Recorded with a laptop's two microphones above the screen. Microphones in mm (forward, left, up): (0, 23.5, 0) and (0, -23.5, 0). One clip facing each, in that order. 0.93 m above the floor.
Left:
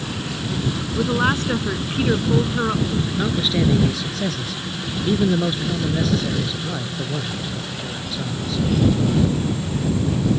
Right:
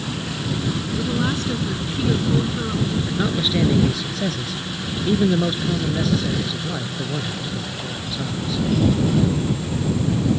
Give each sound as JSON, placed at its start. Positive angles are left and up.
{"t": 0.9, "sound": "a woman speaking", "side_deg": 40}
{"t": 3.1, "sound": "a man speaking", "side_deg": 0}